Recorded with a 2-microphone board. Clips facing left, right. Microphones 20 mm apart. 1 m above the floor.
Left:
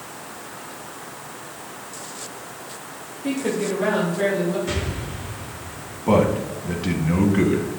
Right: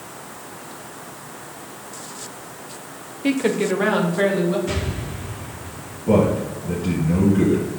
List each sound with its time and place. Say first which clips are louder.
3.2 s a woman speaking: right 4 dB; 45° right (ahead or behind), 0.8 m; by 4.6 s 35° right (ahead or behind), 2 m
4.7 s an explosion: right 1 dB; 10° left (ahead or behind), 2.5 m
6.1 s a man speaking: right 1 dB; 50° left (ahead or behind), 1.5 m